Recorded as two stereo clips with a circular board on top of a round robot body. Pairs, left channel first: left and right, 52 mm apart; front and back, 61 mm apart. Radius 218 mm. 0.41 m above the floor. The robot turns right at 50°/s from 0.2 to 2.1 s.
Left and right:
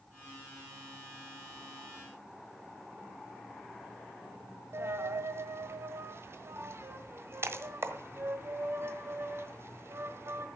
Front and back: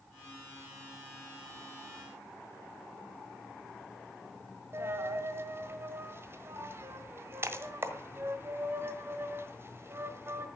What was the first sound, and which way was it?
A dropped coin, 130° right.